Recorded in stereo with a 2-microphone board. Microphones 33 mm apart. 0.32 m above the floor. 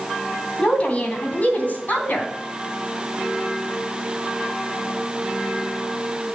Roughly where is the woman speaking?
Left.